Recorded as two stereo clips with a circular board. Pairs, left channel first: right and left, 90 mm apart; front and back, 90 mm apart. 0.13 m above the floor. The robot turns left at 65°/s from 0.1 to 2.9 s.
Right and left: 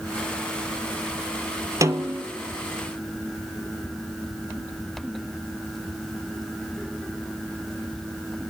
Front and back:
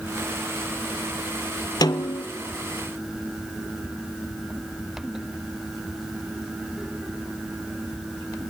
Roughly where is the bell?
I don't hear a bell.